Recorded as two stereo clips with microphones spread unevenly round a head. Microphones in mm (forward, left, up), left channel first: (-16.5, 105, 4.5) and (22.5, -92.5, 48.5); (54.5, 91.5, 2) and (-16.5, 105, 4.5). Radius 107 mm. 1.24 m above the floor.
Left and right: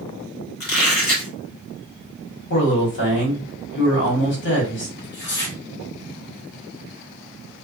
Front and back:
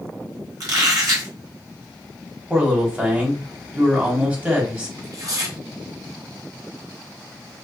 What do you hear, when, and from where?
0.6 s a squeak: 145° left, 1.2 m
2.5 s a man speaking: 95° left, 1.4 m
5.0 s tearing paper: 125° left, 1.1 m